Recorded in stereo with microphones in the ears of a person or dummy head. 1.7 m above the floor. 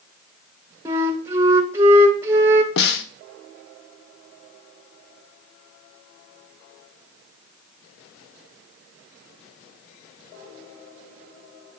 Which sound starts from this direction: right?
A flute, at 0.8 s.